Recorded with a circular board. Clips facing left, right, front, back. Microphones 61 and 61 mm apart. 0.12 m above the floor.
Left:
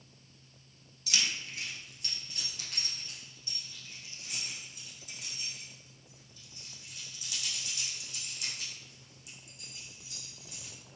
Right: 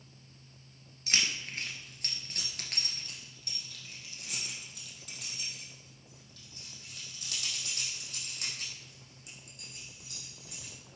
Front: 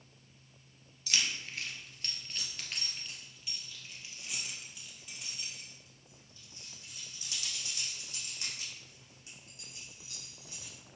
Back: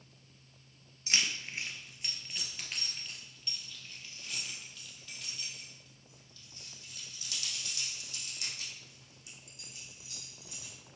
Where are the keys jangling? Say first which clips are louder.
Right 1 dB, back 1 dB; 125° right, 1.3 m; by 10.7 s 60° right, 5.5 m.